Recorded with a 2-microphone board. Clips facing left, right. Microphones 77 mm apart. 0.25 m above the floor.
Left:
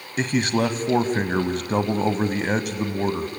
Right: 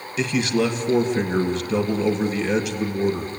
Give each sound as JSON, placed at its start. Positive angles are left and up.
{"t": 0.2, "sound": "a man speaking", "side_deg": 45, "distance_m": 1.3}